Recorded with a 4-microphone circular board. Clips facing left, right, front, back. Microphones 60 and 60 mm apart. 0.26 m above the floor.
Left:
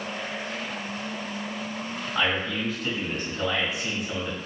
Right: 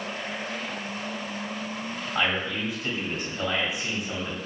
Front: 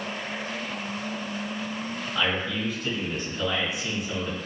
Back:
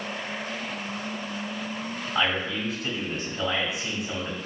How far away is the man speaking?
About 1.2 m.